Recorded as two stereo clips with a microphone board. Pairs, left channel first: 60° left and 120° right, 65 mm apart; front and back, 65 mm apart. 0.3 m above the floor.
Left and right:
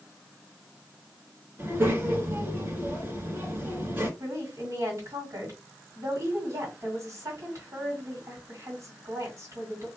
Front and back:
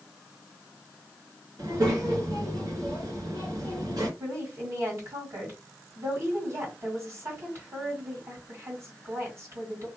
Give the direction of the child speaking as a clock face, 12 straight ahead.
6 o'clock.